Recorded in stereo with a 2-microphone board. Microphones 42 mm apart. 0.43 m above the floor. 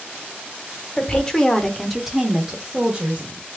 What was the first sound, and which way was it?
A woman speaking, 25° left (ahead or behind).